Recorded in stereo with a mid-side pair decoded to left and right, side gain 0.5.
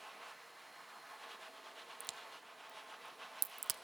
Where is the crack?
55° right, 0.5 m.